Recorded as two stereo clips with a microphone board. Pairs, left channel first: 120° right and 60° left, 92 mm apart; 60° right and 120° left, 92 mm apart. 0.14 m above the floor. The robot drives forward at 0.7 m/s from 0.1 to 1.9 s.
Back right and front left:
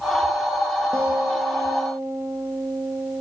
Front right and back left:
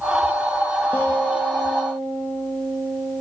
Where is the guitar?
5° left, 3.5 m.